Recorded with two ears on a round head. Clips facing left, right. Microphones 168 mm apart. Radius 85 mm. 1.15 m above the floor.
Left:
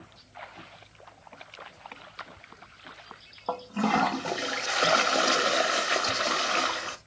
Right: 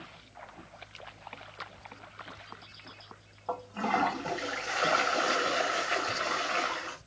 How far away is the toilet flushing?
About 0.6 m.